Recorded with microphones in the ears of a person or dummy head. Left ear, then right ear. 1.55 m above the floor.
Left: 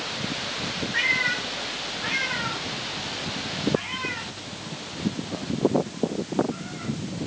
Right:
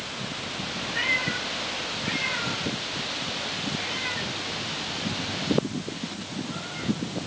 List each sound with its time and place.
0.9 s a cat meowing: 60° left (ahead or behind), 4.5 m; by 7.3 s 5° right (ahead or behind), 3.5 m